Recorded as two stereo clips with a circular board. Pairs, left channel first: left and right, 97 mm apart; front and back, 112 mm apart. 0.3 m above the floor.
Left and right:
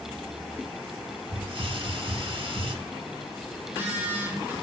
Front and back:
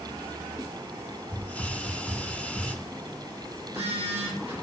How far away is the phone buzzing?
About 4.5 m.